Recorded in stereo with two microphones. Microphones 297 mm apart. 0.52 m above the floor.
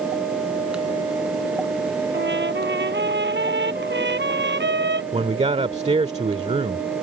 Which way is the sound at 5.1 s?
20° right (ahead or behind).